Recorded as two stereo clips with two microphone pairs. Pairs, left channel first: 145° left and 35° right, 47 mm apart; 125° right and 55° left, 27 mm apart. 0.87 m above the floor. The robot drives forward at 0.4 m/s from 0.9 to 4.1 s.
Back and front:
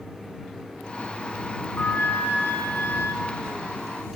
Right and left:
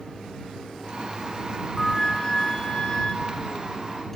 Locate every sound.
1.8 s a flute: 165° left, 1.0 m; by 3.1 s 170° left, 1.6 m